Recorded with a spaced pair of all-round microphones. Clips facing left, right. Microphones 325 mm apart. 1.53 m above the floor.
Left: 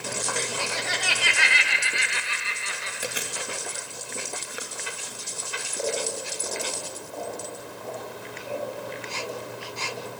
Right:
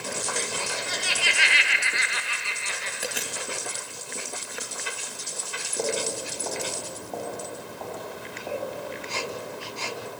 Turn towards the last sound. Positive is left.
turn(degrees=-70)  # may be behind; listen again after turning